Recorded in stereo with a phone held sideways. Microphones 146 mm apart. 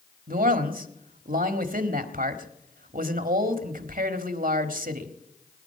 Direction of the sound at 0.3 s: 80° right.